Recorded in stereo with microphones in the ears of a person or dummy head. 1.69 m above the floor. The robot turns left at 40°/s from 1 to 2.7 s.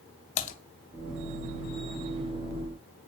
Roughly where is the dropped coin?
No dropped coin in this recording.